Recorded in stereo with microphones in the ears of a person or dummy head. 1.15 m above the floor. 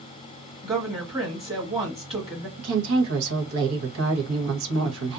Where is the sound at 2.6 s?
80° right, 1.0 m.